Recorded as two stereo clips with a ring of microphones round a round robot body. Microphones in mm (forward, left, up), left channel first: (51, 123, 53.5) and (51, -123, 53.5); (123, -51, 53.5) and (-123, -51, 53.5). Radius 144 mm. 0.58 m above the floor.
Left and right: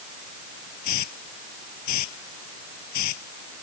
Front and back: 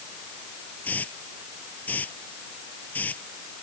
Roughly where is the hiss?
Left.